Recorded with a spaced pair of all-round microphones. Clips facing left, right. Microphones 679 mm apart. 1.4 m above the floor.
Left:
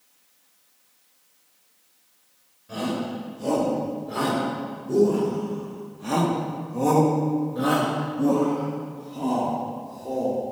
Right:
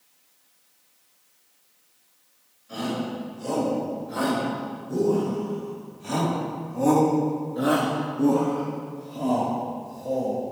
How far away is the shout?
About 6 m.